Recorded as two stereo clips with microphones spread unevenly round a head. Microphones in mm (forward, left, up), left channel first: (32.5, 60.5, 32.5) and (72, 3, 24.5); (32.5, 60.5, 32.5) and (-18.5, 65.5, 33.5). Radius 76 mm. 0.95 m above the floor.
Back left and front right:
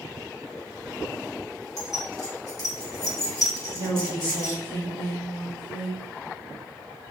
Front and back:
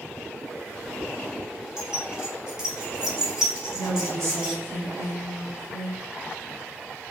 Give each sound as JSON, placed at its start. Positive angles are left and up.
{"t": 1.8, "sound": "keys jangling", "azimuth_deg": 100, "distance_m": 1.8}
{"t": 3.7, "sound": "a woman speaking", "azimuth_deg": 150, "distance_m": 1.5}